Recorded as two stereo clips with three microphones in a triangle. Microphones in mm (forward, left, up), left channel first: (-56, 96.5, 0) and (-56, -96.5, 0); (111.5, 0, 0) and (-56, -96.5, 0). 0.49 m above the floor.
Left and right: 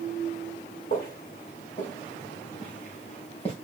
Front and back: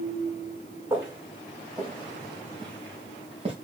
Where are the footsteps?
130° left, 5 m; by 3.5 s 150° left, 4 m.